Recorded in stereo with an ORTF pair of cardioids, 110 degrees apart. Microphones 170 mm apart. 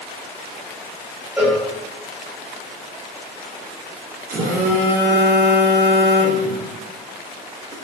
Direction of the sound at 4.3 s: 55° right.